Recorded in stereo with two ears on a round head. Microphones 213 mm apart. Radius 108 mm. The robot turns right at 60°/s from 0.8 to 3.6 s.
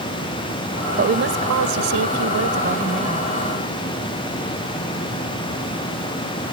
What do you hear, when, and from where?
1.0 s a woman speaking: 145° right; by 3.3 s 5° right